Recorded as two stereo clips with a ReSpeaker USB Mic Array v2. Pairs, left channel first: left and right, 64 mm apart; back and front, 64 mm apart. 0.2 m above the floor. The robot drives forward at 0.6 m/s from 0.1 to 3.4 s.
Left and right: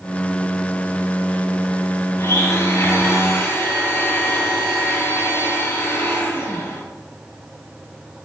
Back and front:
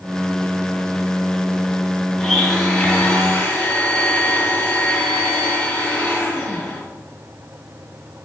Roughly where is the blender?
Left.